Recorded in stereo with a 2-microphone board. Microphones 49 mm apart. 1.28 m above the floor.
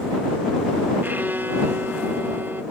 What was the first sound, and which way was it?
A violin, 45° right (ahead or behind).